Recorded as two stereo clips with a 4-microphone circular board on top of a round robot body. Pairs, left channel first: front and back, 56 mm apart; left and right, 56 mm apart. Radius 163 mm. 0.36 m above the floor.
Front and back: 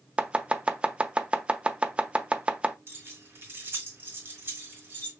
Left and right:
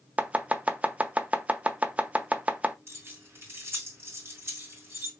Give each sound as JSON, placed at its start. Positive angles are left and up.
{"t": 0.2, "sound": "chopping", "azimuth_deg": -130, "distance_m": 0.7}
{"t": 2.9, "sound": "keys jangling", "azimuth_deg": -130, "distance_m": 2.5}